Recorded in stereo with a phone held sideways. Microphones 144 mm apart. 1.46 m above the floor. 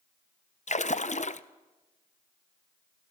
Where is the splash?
55° left (ahead or behind), 0.7 m.